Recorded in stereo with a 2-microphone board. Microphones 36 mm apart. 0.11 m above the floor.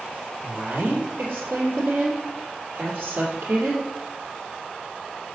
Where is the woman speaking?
60° right (ahead or behind), 2.5 m.